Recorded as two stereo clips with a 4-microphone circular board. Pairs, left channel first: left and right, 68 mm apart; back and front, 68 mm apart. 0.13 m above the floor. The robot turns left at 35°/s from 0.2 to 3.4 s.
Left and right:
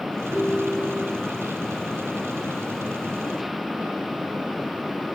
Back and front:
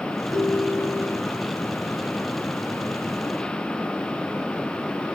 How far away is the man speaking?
No man speaking in this recording.